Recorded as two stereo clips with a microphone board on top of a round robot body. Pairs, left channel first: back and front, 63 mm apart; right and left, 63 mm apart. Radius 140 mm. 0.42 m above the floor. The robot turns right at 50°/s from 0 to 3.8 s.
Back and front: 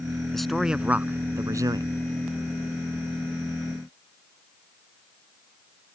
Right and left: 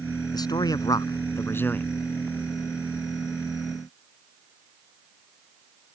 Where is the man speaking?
95° right; by 1.9 s 20° right.